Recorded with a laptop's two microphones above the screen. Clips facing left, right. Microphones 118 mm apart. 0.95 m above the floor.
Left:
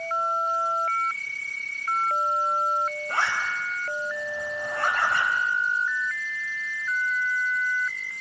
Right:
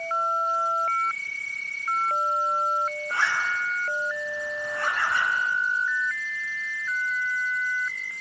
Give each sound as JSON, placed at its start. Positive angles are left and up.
{"t": 3.1, "sound": "a zipper", "side_deg": 65, "distance_m": 6.0}